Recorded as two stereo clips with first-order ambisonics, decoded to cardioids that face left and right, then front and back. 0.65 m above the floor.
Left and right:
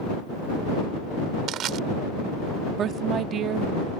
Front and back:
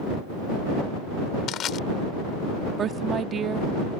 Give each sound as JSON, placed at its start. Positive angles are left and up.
{"t": 1.5, "sound": "crushing", "azimuth_deg": -50}
{"t": 2.8, "sound": "a woman speaking", "azimuth_deg": -130}